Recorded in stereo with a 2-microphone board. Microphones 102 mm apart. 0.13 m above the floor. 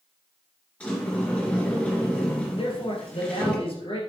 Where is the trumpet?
No trumpet in this recording.